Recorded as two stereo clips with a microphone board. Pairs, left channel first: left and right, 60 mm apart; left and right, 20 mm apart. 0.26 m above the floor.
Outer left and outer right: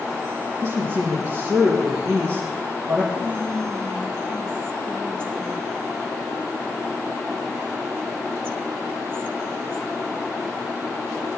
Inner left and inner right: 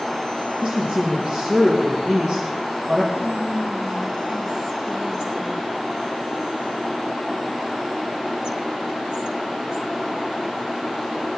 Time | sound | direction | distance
0.6 | a woman speaking | 45° right (ahead or behind) | 3.5 m
3.1 | whispering | 35° right (ahead or behind) | 1.7 m